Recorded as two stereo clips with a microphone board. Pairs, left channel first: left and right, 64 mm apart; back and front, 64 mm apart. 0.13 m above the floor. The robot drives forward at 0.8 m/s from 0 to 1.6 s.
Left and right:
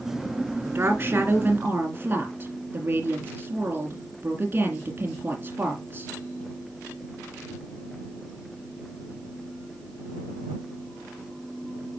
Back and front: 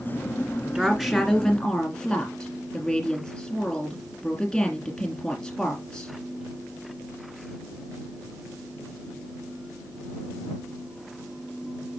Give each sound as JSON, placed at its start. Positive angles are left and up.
{"t": 0.7, "sound": "a woman speaking", "azimuth_deg": -70, "distance_m": 1.9}